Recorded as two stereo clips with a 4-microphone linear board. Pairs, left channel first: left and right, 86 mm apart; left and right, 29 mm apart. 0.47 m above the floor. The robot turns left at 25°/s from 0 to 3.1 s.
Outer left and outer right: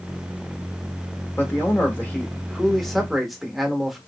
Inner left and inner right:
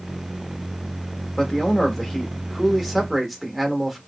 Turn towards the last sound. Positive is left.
turn(degrees=0)